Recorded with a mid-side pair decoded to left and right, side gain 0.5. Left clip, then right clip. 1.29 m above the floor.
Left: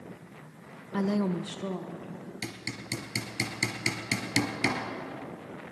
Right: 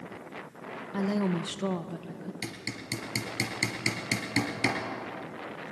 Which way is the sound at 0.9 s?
25° left.